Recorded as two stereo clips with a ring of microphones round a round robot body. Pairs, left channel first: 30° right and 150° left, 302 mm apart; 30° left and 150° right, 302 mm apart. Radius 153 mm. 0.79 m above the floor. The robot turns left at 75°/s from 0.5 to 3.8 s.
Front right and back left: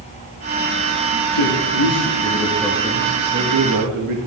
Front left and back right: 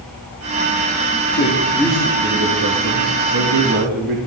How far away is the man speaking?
About 1.5 m.